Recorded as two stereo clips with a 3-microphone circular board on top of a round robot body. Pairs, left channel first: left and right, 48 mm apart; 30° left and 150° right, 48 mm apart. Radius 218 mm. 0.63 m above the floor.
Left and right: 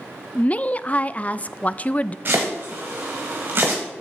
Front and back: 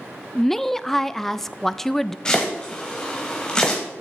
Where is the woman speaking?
110° left, 0.6 m.